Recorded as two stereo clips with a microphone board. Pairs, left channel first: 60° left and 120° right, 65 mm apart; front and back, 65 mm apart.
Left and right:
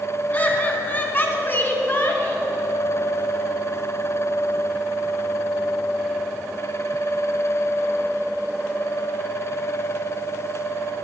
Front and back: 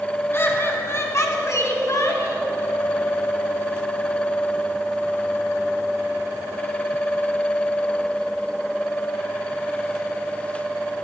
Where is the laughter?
15° left, 1.9 m; by 2.5 s 10° left, 3 m.